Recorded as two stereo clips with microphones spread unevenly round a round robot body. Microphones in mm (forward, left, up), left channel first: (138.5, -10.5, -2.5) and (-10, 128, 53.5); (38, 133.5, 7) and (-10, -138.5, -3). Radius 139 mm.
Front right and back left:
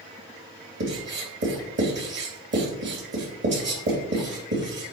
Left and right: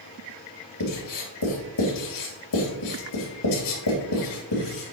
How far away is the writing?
About 2.5 m.